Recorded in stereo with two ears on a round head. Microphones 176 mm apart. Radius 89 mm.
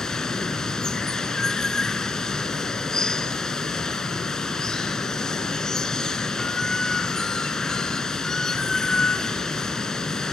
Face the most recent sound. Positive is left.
turn(degrees=5)  # may be behind; listen again after turning